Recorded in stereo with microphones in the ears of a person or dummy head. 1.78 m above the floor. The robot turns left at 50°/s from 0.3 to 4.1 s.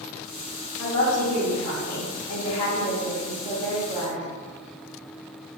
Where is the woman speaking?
150° left, 0.6 m; by 4.2 s 15° right, 0.6 m.